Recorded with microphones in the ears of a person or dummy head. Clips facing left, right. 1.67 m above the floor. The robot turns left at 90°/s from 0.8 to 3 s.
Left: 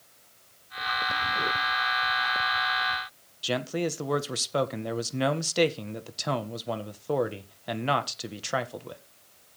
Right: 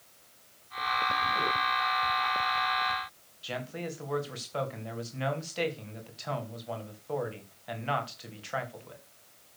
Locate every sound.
3.4 s a man speaking: 70° left (ahead or behind), 1.6 m